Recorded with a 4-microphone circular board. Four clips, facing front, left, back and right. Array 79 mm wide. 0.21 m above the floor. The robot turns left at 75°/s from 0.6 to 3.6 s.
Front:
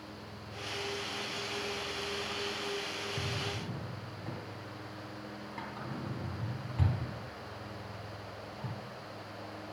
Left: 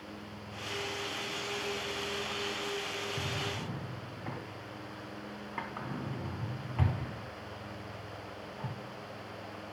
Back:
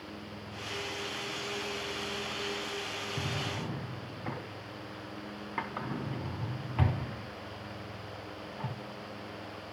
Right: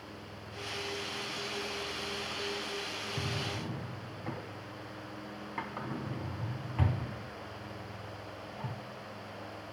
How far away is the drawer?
About 0.8 m.